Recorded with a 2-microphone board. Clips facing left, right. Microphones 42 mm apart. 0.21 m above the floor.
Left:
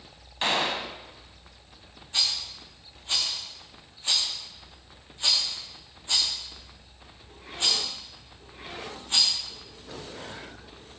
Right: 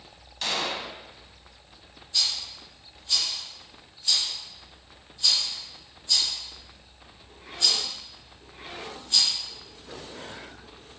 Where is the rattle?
45° left (ahead or behind), 4.5 m.